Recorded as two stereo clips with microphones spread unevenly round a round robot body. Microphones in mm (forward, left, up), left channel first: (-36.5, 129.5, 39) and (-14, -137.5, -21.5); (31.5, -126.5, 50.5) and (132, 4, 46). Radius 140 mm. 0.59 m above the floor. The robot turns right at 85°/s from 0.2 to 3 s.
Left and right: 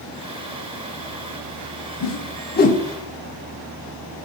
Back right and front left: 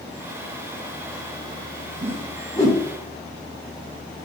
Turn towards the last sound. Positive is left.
turn(degrees=-170)